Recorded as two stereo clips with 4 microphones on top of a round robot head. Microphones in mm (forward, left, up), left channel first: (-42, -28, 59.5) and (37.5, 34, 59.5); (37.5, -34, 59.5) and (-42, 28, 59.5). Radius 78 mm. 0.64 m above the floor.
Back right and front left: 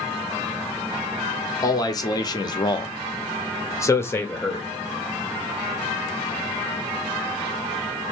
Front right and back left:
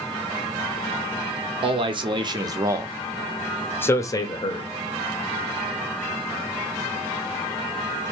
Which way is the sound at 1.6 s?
165° left.